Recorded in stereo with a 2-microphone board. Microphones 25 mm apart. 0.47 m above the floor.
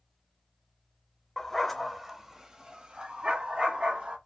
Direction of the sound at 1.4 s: 15° left (ahead or behind).